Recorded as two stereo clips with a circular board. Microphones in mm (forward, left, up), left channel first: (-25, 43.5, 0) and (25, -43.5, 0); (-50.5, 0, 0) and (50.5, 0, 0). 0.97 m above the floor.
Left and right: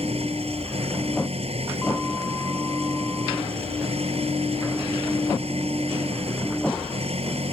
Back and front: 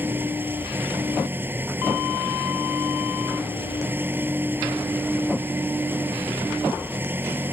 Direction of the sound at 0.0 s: 70° right.